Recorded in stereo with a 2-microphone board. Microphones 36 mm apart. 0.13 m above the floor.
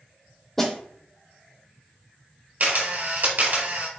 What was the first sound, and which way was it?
A snare drum, 15° left (ahead or behind).